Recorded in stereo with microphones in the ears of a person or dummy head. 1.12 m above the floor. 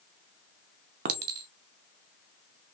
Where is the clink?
50° right (ahead or behind), 0.5 m.